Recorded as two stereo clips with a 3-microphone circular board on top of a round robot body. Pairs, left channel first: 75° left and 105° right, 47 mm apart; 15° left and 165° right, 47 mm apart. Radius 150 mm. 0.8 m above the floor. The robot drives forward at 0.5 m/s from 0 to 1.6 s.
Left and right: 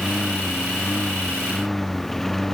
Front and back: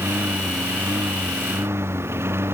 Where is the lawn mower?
160° left.